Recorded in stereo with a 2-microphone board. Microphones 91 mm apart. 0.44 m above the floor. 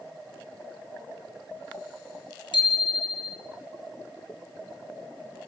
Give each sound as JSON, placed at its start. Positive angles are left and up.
{"t": 2.5, "sound": "a bicycle bell", "side_deg": 65, "distance_m": 5.0}